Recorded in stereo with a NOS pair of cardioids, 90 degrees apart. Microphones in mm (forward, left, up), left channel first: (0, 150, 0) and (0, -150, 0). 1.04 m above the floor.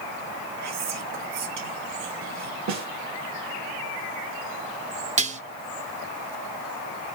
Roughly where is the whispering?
Ahead right.